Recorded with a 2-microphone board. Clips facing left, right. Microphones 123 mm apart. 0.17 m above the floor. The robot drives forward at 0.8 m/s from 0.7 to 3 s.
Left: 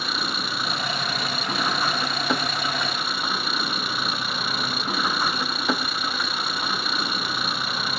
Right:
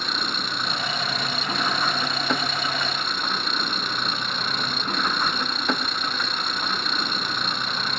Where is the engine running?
5° left (ahead or behind).